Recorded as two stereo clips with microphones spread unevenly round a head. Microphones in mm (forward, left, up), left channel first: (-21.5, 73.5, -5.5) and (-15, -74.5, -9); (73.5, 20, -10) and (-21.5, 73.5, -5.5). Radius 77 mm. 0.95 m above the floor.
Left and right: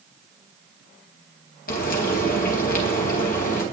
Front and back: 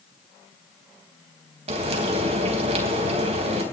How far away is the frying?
About 4 m.